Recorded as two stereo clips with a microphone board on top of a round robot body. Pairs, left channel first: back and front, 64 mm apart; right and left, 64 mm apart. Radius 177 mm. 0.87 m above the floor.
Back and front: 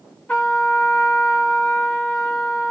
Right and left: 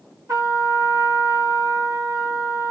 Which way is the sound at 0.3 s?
110° left.